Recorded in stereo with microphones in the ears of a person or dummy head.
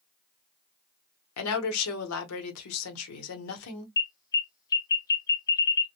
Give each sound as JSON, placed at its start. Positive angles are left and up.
{"t": 1.4, "sound": "a woman speaking", "side_deg": 80, "distance_m": 0.9}
{"t": 4.0, "sound": "an alarm", "side_deg": 20, "distance_m": 0.6}